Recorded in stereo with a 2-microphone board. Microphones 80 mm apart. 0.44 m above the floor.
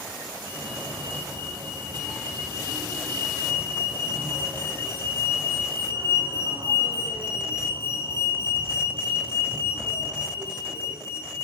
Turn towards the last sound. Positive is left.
turn(degrees=-75)  # may be behind; listen again after turning